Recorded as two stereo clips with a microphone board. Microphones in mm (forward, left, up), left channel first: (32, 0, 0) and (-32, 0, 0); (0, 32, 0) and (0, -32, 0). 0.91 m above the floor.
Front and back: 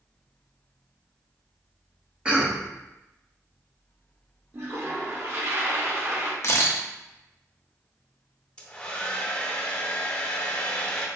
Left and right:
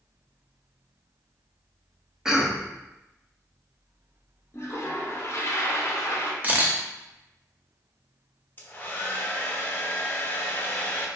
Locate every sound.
2.2 s a cough: 150° right, 0.5 m
4.5 s a toilet flushing: 130° left, 0.5 m
6.4 s a camera shutter: 35° right, 0.5 m
8.6 s a hair dryer: 60° left, 0.5 m